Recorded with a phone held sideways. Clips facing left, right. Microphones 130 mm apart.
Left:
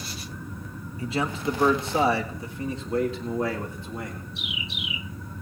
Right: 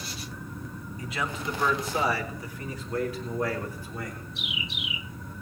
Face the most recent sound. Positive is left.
turn(degrees=25)  # may be behind; listen again after turning